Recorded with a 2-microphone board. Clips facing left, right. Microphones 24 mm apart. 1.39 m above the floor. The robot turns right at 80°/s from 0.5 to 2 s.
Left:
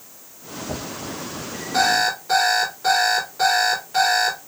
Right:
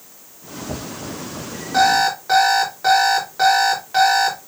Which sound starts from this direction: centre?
An alarm clock, at 1.7 s.